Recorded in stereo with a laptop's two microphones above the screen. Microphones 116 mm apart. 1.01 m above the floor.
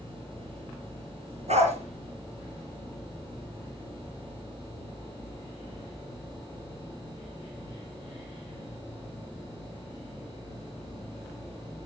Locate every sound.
1.5 s a dog barking: 70° right (ahead or behind), 5 m